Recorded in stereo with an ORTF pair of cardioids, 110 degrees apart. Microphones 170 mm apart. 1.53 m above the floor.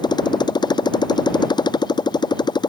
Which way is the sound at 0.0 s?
25° left.